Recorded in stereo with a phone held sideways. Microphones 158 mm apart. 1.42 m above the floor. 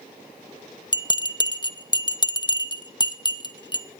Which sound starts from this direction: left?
A bell, at 0.9 s.